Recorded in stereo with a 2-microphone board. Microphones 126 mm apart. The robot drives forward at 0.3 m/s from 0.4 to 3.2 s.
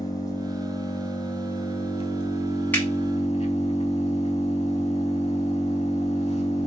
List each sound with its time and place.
0.0 s an engine running: 35° left (ahead or behind), 1.0 m; by 6.7 s 75° left (ahead or behind), 0.6 m
2.7 s a finger snap: 15° left (ahead or behind), 1.0 m